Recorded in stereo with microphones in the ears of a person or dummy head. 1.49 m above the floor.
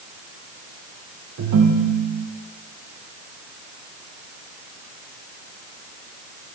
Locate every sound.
1.4 s a ringtone: 55° right (ahead or behind), 0.9 m